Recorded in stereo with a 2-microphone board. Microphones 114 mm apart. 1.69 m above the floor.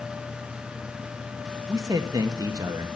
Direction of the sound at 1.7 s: 35° right (ahead or behind).